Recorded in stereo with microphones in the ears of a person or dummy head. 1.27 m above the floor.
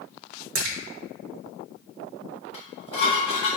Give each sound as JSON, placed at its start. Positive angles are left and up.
{"t": 0.6, "sound": "a splash", "side_deg": -75, "distance_m": 0.9}
{"t": 2.5, "sound": "dishes clattering", "side_deg": 35, "distance_m": 1.5}